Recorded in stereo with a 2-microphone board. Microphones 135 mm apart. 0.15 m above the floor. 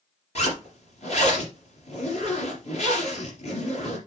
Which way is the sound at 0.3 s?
50° left (ahead or behind).